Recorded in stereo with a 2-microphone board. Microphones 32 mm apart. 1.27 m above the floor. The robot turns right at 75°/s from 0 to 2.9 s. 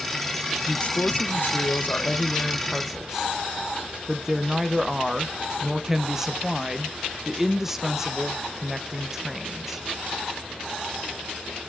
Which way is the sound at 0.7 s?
20° left.